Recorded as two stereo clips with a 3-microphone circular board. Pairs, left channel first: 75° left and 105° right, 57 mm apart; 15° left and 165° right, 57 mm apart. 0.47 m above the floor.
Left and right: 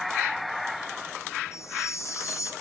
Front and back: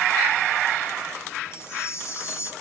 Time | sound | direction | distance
1.5 | a chime | 50° left | 5.5 m